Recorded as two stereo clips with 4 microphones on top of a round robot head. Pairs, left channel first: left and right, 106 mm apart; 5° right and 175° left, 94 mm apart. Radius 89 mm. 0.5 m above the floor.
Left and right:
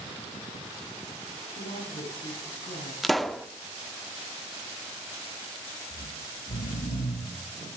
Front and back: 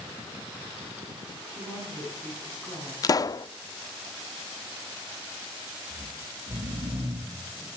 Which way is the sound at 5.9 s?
110° left.